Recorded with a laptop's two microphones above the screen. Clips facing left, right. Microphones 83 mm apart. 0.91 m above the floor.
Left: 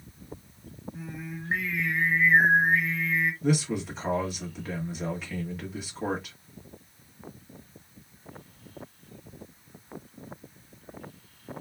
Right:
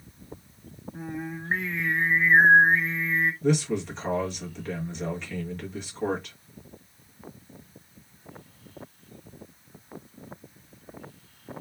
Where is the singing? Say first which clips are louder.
Right 6 dB; 35° right (ahead or behind), 0.9 m.